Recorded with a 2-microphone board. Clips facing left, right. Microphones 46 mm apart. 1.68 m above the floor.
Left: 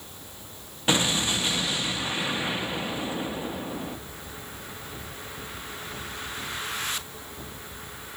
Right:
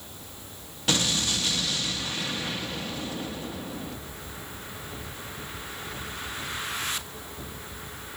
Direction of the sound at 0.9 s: 20° left (ahead or behind).